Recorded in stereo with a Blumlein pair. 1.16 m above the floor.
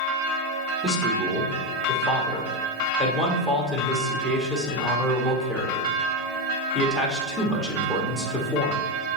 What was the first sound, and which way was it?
A man speaking, 10° left.